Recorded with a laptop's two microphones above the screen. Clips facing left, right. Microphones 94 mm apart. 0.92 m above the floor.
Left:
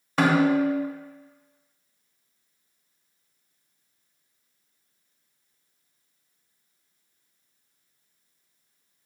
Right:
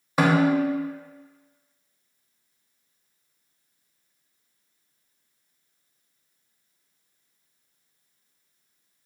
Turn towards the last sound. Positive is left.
turn(degrees=-5)  # may be behind; listen again after turning